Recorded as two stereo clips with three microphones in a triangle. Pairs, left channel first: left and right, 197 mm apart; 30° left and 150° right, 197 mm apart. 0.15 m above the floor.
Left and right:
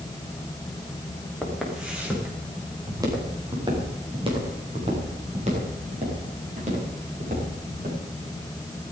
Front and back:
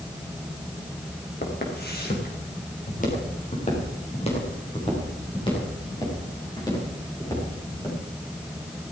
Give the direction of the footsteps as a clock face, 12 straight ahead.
12 o'clock.